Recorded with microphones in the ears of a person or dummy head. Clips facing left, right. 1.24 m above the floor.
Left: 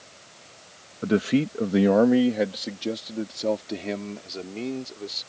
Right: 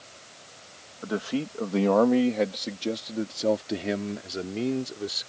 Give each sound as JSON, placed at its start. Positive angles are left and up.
{"t": 1.0, "sound": "a man speaking", "side_deg": 40}